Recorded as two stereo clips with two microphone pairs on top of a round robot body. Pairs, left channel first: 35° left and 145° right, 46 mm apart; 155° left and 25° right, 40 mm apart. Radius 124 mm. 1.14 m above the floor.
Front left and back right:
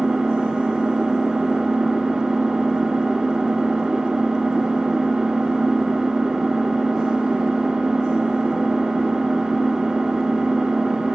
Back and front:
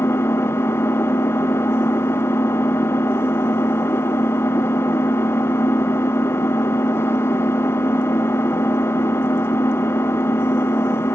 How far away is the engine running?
About 1.1 m.